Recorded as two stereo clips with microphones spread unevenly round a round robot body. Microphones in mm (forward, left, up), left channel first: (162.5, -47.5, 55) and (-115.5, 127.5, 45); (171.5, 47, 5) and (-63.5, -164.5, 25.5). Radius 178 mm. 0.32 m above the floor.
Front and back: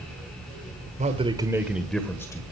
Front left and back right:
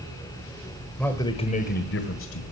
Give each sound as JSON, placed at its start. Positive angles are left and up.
{"t": 1.0, "sound": "a man speaking", "azimuth_deg": 120, "distance_m": 1.4}